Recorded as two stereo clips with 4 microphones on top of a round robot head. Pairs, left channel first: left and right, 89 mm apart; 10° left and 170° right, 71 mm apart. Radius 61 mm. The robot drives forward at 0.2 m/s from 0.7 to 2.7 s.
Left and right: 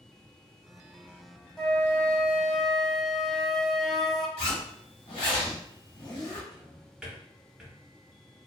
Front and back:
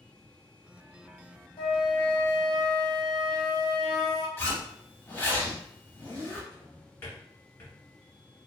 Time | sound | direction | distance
1.6 | a flute | 5° left | 0.8 m
4.4 | a zipper | 70° left | 1.0 m
6.5 | a drawer | 25° right | 0.9 m